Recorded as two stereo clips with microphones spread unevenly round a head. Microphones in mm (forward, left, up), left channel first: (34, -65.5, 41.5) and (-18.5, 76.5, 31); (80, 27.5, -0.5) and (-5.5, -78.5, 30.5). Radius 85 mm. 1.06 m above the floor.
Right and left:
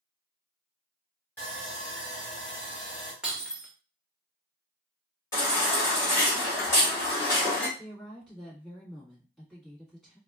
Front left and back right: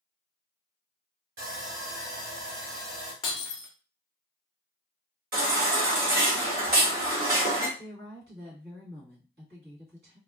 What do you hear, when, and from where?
1.4 s sawing: 150° right, 2 m
3.2 s breaking glass: 25° left, 0.5 m
5.3 s a baby crying: 140° right, 1.7 m
7.8 s a woman speaking: 155° right, 1.8 m